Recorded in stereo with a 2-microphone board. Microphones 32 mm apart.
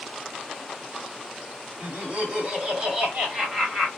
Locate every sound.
1.8 s laughter: 35° right (ahead or behind), 2 m; by 3.9 s 15° right (ahead or behind), 2.5 m